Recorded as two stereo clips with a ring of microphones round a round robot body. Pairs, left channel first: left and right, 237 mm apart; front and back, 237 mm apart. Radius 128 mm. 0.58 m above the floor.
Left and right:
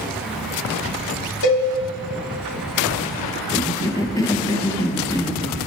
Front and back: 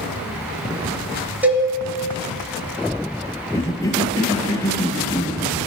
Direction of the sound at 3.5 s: 45° left.